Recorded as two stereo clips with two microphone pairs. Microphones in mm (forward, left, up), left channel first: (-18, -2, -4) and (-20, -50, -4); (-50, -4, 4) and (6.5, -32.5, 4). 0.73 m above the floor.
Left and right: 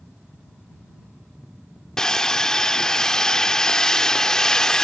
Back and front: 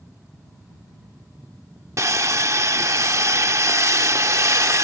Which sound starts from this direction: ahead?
Sawing, at 2.0 s.